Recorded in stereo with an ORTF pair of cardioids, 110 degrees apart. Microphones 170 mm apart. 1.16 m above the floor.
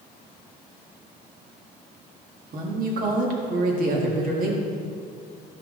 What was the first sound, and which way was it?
A woman speaking, 55° right.